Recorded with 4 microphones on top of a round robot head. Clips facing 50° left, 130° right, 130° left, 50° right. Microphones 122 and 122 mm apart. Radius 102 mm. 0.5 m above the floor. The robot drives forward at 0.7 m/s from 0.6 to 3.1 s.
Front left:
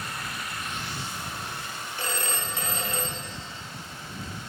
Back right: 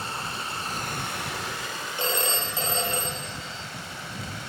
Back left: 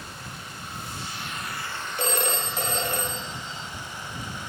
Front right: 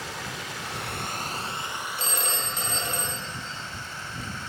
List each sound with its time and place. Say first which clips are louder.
0.0 s running water: back right 3 dB, front right 4 dB; 65° right, 0.8 m; by 4.5 s 155° right, 1.6 m
2.0 s a phone ringing: back right 4 dB, back left 8 dB; 160° left, 1.2 m; by 3.6 s 170° left, 2.0 m